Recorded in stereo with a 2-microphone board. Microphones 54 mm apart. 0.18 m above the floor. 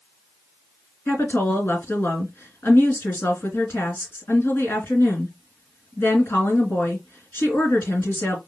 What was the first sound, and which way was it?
A woman speaking, 45° left (ahead or behind).